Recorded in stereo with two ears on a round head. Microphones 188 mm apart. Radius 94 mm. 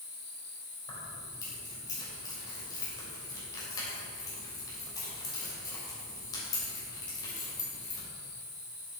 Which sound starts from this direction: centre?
Keys jangling, at 0.9 s.